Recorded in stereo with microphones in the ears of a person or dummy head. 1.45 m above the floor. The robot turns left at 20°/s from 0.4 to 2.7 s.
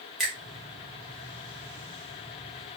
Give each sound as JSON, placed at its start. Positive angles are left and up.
{"t": 0.2, "sound": "a finger snap", "side_deg": 5, "distance_m": 0.6}